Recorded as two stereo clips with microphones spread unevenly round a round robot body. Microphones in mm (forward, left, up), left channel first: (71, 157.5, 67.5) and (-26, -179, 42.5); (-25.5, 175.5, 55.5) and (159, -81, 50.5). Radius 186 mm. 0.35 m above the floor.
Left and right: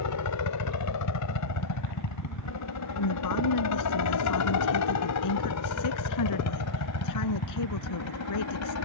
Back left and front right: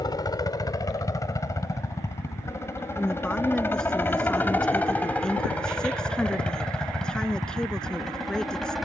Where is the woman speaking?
40° left.